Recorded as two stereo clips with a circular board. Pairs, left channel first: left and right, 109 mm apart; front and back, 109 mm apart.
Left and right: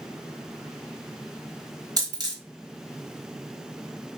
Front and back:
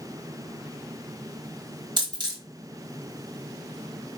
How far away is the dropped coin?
About 1.1 m.